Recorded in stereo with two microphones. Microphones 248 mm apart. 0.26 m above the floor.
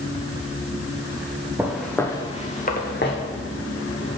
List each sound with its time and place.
1.6 s footsteps: 10° right (ahead or behind), 1.4 m; by 4.2 s 65° left (ahead or behind), 2.5 m